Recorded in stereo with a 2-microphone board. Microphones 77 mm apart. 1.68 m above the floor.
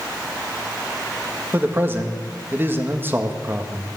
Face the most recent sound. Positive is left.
turn(degrees=-25)  # may be behind; listen again after turning